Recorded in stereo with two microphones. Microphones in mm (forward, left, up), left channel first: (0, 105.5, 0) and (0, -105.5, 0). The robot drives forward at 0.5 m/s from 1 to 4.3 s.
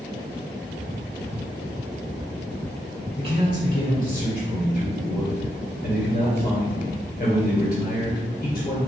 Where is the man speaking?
55° left (ahead or behind), 1.7 m; by 8.8 s 45° left (ahead or behind), 2 m.